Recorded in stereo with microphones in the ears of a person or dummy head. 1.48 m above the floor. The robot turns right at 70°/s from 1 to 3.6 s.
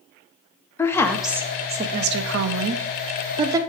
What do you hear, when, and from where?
0.8 s a woman speaking: 15° left (ahead or behind), 0.5 m; by 3.6 s 15° right (ahead or behind), 0.5 m